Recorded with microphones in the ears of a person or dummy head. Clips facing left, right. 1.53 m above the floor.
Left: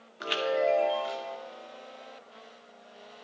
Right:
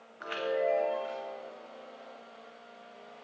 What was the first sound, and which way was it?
A chime, 30° left (ahead or behind).